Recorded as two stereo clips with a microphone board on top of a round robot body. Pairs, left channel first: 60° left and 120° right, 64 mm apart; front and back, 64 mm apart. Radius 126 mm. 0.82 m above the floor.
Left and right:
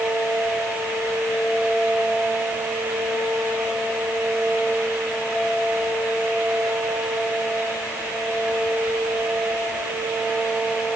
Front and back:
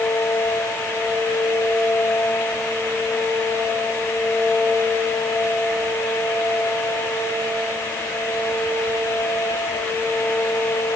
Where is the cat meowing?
I don't hear a cat meowing.